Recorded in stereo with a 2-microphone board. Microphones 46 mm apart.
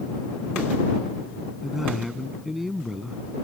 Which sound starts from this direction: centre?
A man speaking, at 1.6 s.